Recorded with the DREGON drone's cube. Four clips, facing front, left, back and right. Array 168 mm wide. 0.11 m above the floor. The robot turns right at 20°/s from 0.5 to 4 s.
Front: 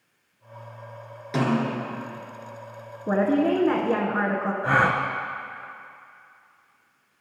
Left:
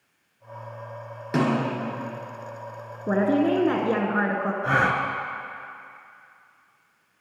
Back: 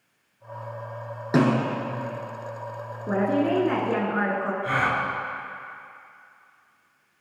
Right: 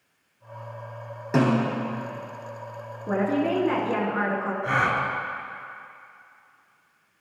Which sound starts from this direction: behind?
A snare drum, at 1.3 s.